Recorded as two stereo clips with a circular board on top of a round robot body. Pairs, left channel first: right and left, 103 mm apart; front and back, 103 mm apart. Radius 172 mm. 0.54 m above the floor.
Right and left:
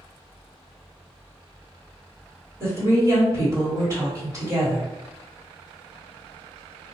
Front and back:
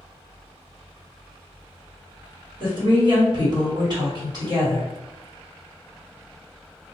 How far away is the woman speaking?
About 1.7 m.